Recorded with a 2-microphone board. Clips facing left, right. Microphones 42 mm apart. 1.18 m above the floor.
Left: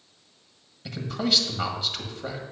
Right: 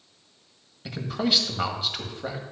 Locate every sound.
0.8 s a man speaking: 15° right (ahead or behind), 1.7 m